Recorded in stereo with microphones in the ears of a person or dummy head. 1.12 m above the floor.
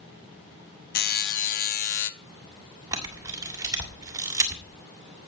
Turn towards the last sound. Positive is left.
turn(degrees=-15)  # may be behind; listen again after turning